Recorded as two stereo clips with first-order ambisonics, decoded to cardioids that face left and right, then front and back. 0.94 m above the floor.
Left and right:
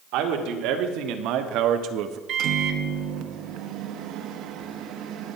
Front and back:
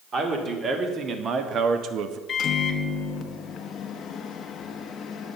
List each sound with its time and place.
0.1 s a man speaking: 115° right, 1.9 m; by 2.2 s 135° right, 0.8 m
2.3 s a microwave: 55° right, 0.9 m